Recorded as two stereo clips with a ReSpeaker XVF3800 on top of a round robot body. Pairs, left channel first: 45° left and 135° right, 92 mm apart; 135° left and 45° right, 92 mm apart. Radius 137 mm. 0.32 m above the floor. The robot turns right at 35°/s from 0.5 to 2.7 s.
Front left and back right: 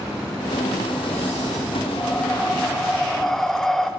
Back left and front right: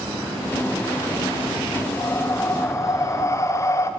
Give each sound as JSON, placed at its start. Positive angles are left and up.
{"t": 2.0, "sound": "breathing", "azimuth_deg": 100, "distance_m": 0.6}